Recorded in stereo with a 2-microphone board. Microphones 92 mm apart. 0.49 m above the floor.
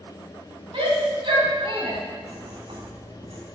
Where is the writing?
70° right (ahead or behind), 4.5 m.